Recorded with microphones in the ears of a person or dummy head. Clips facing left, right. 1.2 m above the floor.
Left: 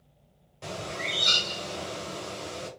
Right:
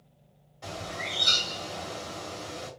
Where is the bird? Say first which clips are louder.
Left 2 dB; 40° left (ahead or behind), 1.5 m.